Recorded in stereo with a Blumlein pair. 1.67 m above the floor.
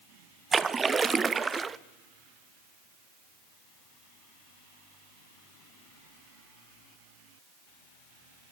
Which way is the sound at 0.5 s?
15° right.